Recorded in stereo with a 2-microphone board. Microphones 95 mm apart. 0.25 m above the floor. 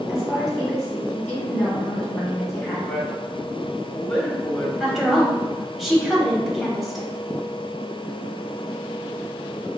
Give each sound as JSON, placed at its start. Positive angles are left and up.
{"t": 0.1, "sound": "a woman speaking", "side_deg": 5, "distance_m": 2.0}
{"t": 2.9, "sound": "a man speaking", "side_deg": 5, "distance_m": 1.1}
{"t": 4.8, "sound": "a woman speaking", "side_deg": 0, "distance_m": 1.0}